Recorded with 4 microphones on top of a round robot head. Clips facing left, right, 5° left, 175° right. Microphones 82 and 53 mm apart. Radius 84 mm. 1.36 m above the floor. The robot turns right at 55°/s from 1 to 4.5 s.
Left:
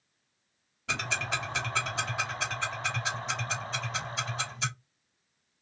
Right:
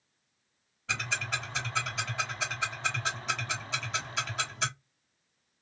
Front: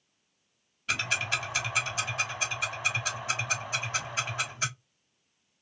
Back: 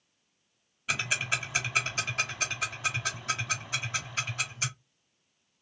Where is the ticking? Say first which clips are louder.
Left 1 dB, front 1 dB; 100° left, 1.1 m; by 4.7 s 65° right, 1.1 m.